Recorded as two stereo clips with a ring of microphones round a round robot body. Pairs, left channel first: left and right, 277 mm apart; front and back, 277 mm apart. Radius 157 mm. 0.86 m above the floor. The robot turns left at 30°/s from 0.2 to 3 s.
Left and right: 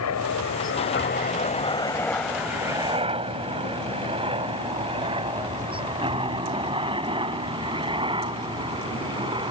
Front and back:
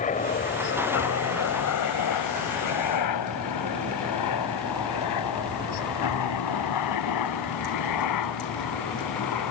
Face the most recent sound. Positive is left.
turn(degrees=-15)